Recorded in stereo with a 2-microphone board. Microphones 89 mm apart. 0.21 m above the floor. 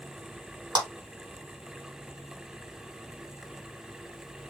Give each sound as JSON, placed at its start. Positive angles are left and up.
{"t": 0.8, "sound": "a clap", "side_deg": -55, "distance_m": 1.9}